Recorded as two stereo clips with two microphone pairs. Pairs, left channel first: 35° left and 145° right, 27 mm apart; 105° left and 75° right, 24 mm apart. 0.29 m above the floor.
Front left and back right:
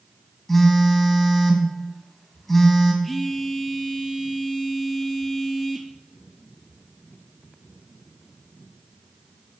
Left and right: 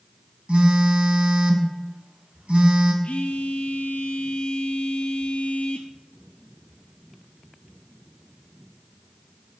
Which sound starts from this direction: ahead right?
A phone buzzing, at 0.5 s.